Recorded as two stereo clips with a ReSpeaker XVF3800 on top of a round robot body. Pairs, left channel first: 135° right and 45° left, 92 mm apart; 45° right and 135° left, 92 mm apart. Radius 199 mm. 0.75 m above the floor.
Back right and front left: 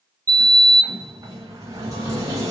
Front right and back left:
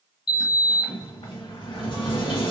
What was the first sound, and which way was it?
A sliding door, 10° right.